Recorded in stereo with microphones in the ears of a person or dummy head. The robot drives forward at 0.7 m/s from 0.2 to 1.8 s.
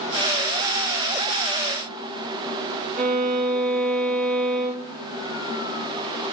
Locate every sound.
3.0 s a violin: 35° right (ahead or behind), 0.5 m